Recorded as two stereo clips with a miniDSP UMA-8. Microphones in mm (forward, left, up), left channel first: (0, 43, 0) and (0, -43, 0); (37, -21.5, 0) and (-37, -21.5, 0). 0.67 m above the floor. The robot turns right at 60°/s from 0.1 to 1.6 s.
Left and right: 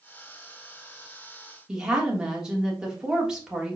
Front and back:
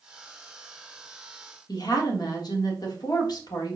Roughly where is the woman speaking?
Ahead.